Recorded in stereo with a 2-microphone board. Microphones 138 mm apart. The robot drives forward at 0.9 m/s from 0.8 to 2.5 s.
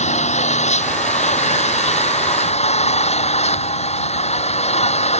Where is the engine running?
55° left (ahead or behind); by 5.2 s 50° left (ahead or behind).